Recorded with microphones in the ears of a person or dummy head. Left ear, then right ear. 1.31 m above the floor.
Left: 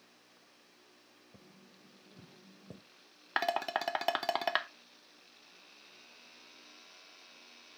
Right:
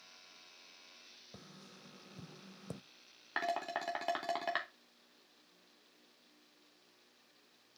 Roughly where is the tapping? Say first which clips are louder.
Right 3 dB; right.